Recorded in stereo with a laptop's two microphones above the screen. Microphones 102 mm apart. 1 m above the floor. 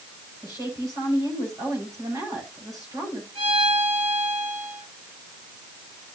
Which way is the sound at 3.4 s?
85° right.